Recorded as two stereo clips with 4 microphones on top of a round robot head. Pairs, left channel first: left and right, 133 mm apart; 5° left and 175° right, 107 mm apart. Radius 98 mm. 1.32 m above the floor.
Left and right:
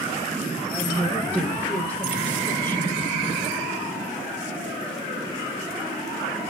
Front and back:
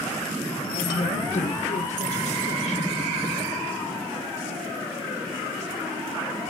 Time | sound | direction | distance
0.6 | a woman speaking | 20° right | 5.5 m